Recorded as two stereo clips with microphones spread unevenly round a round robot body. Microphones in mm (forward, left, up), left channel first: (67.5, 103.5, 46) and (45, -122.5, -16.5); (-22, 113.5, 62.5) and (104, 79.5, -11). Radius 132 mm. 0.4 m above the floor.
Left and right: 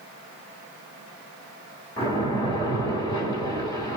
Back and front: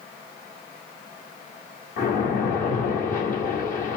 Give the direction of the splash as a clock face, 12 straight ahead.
6 o'clock.